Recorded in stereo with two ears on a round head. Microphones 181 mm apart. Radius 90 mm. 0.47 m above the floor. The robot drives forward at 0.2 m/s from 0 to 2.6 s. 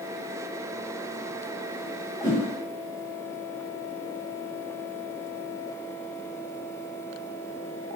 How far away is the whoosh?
About 1.3 m.